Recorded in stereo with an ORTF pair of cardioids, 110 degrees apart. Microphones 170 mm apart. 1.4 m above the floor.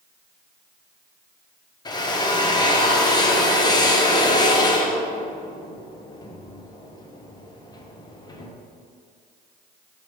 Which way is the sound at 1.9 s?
25° left.